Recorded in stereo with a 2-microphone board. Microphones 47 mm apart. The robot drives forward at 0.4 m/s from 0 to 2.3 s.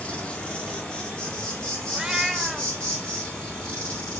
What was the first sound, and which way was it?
An insect, 25° left (ahead or behind).